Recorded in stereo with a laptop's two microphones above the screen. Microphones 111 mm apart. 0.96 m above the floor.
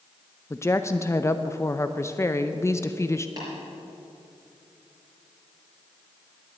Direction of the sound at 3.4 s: 35° right (ahead or behind).